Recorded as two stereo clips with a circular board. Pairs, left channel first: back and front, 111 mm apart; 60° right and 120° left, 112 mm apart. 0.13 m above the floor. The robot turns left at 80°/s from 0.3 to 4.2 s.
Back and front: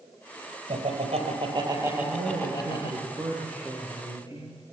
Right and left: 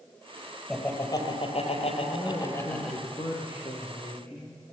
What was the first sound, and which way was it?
Laughter, 30° left.